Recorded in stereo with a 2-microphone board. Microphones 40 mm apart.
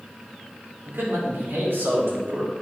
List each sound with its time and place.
0.8 s a man speaking: 85° right, 4.5 m; by 2.5 s 70° right (ahead or behind), 4.5 m